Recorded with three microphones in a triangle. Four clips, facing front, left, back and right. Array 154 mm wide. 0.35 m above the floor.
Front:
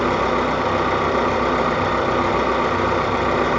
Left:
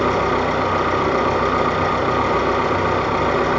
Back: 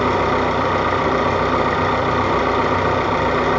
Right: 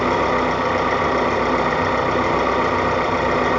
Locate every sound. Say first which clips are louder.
0.0 s an engine running: even, back 2 dB; 170° right, 4 m